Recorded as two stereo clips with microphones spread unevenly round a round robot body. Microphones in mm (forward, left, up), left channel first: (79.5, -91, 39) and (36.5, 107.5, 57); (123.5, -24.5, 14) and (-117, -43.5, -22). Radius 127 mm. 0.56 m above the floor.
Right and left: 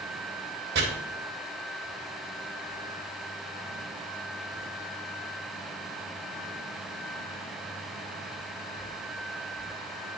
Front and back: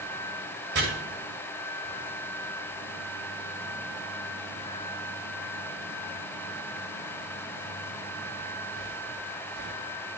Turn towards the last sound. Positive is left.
turn(degrees=145)